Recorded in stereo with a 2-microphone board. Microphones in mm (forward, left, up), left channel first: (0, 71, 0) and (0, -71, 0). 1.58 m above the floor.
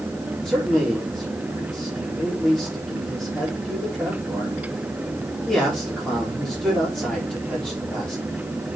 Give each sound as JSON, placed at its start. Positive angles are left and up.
{"t": 0.5, "sound": "a man speaking", "side_deg": 5, "distance_m": 4.0}